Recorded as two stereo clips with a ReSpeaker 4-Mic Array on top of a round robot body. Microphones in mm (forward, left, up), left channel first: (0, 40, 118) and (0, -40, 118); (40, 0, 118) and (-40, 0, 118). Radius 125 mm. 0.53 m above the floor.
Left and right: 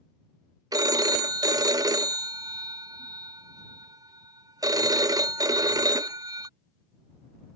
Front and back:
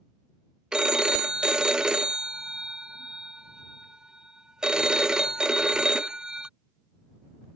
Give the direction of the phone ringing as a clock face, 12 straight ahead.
3 o'clock.